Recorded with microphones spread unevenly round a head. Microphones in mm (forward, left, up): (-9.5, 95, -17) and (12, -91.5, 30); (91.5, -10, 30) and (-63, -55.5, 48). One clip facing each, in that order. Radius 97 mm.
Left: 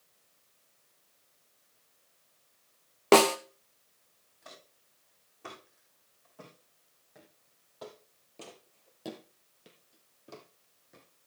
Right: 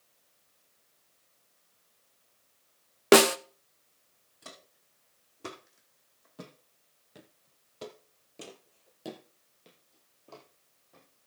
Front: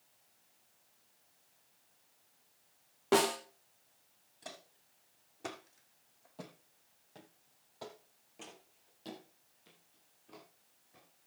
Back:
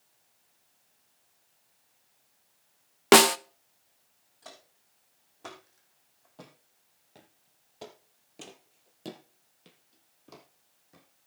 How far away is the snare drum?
About 0.7 m.